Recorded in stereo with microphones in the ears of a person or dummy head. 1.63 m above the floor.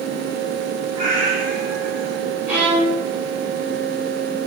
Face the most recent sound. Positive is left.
turn(degrees=-5)  # may be behind; listen again after turning